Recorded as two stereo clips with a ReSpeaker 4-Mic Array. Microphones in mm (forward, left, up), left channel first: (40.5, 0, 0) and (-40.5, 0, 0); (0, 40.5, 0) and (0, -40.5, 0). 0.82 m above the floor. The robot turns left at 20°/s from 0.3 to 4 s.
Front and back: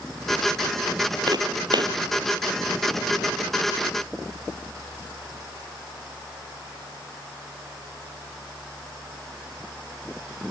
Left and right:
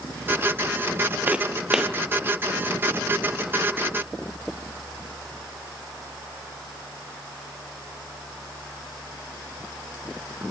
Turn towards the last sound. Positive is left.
turn(degrees=145)